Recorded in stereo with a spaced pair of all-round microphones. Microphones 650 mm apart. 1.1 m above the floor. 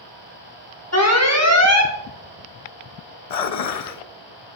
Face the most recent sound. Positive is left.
turn(degrees=70)  # may be behind; listen again after turning